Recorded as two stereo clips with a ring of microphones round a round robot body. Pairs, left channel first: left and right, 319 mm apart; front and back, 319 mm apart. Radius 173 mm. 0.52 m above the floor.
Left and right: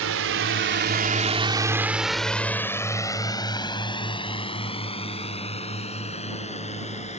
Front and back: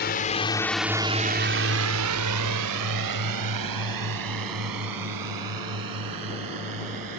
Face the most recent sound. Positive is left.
turn(degrees=160)